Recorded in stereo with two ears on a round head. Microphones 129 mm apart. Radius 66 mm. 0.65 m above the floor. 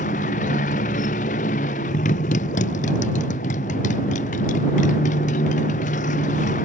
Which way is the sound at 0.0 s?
55° left (ahead or behind).